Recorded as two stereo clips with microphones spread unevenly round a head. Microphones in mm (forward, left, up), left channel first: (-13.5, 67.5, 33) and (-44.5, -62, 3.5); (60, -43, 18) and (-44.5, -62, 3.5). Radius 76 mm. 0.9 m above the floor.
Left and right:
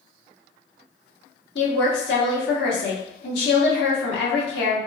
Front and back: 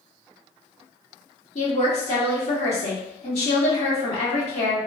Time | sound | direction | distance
1.6 | a woman speaking | 60° left | 1.7 m